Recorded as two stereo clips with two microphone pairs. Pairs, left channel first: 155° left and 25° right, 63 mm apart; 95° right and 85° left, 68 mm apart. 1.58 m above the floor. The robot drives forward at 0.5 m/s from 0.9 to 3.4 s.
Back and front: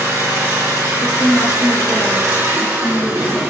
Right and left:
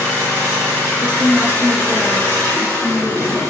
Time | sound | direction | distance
0.0 | an engine running | 30° right | 2 m
1.0 | a woman speaking | 135° left | 0.6 m